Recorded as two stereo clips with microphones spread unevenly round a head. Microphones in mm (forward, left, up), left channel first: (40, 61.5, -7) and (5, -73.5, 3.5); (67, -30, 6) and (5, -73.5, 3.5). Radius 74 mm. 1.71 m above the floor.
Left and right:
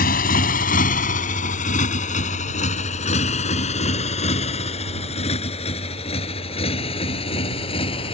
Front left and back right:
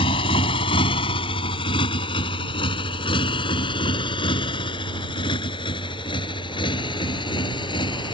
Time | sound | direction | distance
0.0 | a motorcycle | 50° left | ?